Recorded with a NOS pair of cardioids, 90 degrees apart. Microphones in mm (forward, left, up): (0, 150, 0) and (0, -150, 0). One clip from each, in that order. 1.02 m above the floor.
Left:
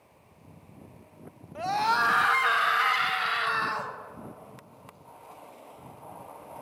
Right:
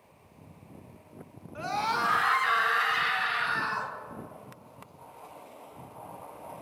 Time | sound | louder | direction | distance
1.6 | a scream | left 4 dB | 20° left | 1.1 m